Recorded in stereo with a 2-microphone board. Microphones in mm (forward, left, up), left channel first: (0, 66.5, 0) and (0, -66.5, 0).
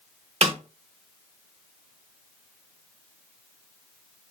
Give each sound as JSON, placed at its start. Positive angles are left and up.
{"t": 0.4, "sound": "a snare drum", "side_deg": -50, "distance_m": 0.8}